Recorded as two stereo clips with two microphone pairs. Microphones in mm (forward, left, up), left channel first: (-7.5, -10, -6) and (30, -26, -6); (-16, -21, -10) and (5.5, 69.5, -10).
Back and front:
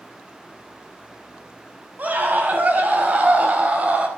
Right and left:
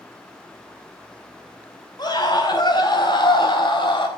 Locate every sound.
2.0 s a scream: 65° right, 5 m; by 4.1 s 75° right, 4 m